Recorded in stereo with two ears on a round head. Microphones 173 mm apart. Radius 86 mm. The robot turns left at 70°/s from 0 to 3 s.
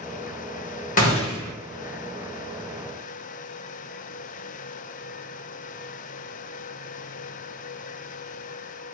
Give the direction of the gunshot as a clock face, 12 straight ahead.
10 o'clock.